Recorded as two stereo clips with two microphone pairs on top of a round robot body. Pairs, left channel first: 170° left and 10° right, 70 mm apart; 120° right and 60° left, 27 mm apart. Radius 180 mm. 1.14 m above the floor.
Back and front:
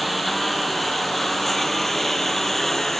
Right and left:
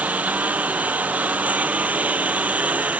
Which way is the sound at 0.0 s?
80° left.